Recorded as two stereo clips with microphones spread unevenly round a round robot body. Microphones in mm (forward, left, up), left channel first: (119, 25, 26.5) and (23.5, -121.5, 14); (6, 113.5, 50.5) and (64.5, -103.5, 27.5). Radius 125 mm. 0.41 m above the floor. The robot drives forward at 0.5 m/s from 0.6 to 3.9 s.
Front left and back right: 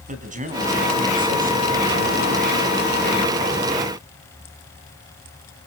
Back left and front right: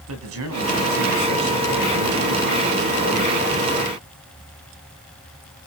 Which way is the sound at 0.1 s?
85° right.